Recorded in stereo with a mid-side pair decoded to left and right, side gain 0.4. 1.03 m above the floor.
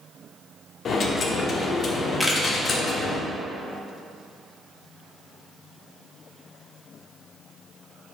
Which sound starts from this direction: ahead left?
A dropped coin, at 0.8 s.